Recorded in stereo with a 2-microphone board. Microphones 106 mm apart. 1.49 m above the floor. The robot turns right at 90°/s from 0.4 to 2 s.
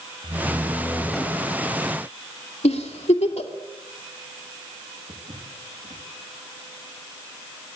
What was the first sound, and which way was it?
A door slam, 65° right.